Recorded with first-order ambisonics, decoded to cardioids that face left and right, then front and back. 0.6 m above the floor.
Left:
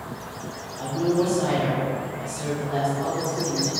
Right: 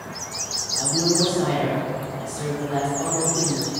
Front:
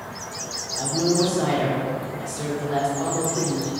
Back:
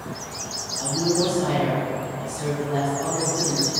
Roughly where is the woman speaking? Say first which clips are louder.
Right 1 dB, front 1 dB; ahead.